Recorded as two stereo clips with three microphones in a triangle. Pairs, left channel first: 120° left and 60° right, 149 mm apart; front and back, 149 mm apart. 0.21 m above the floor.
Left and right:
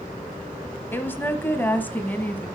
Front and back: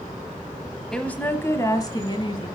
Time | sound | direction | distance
0.9 | a woman speaking | 75° left | 0.9 m